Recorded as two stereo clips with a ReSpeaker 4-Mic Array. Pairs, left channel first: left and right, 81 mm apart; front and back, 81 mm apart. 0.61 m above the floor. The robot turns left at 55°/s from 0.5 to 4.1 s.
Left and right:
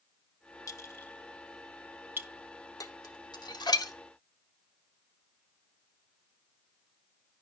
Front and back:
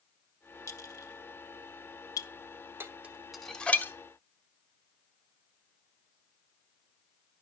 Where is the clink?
50° left, 1.1 m; by 2.3 s 40° right, 1.1 m.